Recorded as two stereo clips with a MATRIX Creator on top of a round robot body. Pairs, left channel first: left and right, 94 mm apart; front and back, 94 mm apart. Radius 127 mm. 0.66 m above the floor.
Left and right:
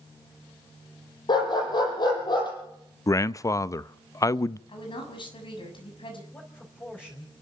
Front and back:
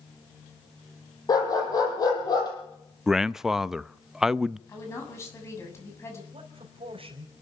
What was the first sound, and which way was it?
A dog barking, 50° left.